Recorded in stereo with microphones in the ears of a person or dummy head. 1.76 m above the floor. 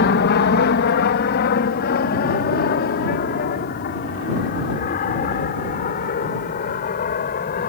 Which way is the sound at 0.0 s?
50° left (ahead or behind).